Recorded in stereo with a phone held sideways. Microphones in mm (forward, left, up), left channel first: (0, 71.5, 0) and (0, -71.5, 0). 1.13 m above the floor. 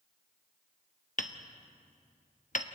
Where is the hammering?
60° left (ahead or behind), 1.0 m.